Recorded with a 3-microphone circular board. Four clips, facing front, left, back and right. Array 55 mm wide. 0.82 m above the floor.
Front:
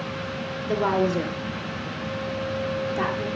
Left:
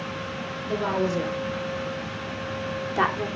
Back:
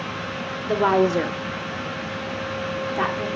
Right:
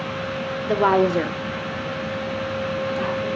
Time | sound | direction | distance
0.7 | a woman speaking | 115° right | 1.7 m